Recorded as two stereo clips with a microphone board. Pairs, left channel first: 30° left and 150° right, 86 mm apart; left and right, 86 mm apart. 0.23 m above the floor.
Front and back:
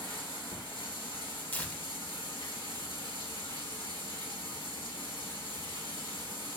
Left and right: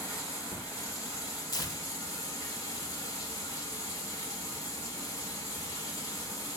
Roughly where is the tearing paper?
Left.